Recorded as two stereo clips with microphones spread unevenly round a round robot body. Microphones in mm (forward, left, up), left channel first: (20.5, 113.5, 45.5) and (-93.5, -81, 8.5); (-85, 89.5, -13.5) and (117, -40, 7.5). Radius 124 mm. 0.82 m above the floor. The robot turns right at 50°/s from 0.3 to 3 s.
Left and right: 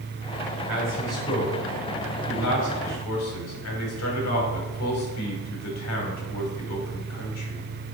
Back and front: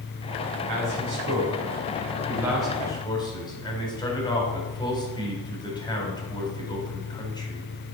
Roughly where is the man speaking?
Ahead right.